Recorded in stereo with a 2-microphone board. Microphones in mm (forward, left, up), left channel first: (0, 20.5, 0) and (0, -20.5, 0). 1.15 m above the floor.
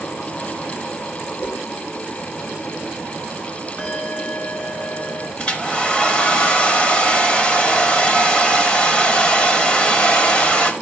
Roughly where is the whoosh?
Left.